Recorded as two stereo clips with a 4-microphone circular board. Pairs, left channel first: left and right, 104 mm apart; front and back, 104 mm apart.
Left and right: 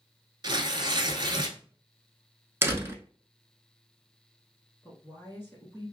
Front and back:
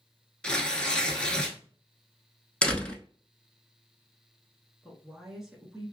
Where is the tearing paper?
75° right, 0.6 m.